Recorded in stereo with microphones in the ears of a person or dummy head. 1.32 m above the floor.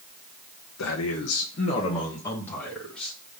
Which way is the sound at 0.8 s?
80° left.